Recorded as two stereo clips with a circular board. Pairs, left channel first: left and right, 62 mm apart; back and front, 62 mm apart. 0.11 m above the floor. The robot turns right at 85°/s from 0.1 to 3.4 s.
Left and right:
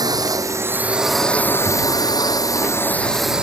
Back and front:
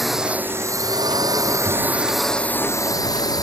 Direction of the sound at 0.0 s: 90° right.